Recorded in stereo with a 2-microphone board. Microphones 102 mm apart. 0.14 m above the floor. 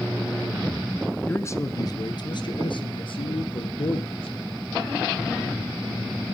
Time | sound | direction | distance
1.3 | a man speaking | 20° left (ahead or behind) | 1.1 m